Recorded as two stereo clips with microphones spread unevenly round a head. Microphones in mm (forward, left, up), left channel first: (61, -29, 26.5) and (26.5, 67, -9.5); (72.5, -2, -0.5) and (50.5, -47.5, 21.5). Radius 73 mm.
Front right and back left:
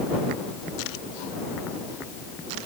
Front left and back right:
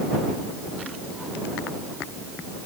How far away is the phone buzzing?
No phone buzzing in this recording.